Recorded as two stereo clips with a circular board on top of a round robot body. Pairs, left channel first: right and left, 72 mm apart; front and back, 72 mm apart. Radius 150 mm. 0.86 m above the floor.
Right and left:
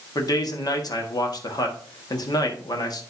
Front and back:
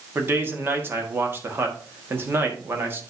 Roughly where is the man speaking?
Behind right.